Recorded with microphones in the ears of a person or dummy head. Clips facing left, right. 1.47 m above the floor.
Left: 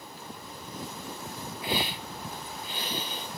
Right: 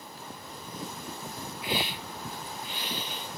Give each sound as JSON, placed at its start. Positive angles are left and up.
{"t": 1.6, "sound": "a hiss", "side_deg": 35, "distance_m": 2.0}